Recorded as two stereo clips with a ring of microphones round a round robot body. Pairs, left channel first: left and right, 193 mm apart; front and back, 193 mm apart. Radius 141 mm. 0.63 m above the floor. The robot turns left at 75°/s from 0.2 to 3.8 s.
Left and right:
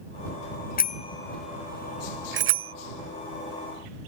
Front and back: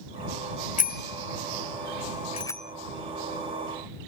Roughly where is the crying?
I don't hear crying.